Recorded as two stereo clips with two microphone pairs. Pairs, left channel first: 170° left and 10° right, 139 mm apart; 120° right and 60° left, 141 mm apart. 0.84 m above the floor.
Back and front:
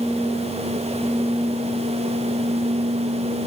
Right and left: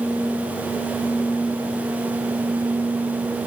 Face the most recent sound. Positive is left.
No sound to turn to.